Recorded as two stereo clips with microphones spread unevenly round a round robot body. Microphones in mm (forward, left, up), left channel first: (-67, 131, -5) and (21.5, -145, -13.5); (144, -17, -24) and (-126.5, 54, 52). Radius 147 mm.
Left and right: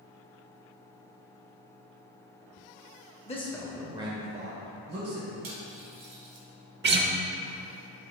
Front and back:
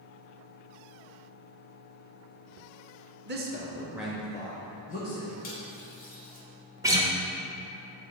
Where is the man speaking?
135° left, 0.8 m; by 5.3 s 50° right, 1.4 m.